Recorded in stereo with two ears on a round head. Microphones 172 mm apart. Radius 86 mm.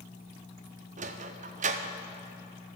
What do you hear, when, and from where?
1.0 s a sliding door: 40° right (ahead or behind), 0.5 m